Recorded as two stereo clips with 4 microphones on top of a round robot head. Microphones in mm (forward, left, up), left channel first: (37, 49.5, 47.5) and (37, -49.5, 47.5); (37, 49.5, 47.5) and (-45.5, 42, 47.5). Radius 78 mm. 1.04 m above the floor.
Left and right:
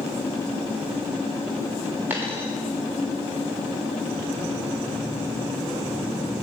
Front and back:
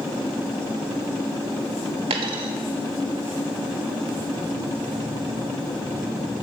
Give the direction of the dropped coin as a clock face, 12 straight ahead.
6 o'clock.